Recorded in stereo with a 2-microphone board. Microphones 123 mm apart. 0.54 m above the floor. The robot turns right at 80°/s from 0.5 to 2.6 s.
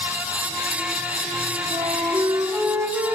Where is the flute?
95° right, 5.5 m; by 3.2 s 25° right, 5.5 m.